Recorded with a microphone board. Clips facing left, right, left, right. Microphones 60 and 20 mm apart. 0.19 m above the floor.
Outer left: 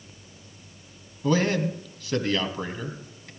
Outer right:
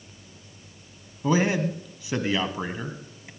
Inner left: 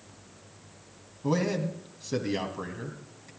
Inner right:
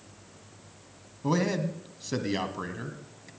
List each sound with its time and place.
1.2 s a man speaking: 15° right (ahead or behind), 1.2 m